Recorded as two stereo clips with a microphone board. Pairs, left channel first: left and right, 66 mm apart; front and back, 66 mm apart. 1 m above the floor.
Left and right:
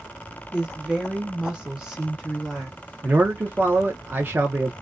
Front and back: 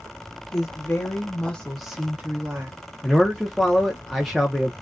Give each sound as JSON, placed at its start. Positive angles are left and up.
{"t": 0.5, "sound": "a woman speaking", "azimuth_deg": -20, "distance_m": 1.1}
{"t": 3.0, "sound": "a man speaking", "azimuth_deg": -90, "distance_m": 0.6}